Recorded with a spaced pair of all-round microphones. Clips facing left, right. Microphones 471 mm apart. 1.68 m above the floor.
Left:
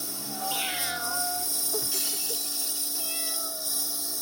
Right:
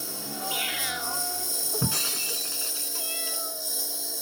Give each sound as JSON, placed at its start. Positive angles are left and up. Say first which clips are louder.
{"t": 0.0, "sound": "a lawn mower", "louder": "right 1 dB", "side_deg": 25}
{"t": 1.8, "sound": "breaking glass", "louder": "right 6 dB", "side_deg": -70}